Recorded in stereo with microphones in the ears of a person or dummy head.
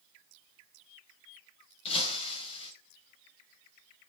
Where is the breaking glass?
35° left (ahead or behind), 4 m.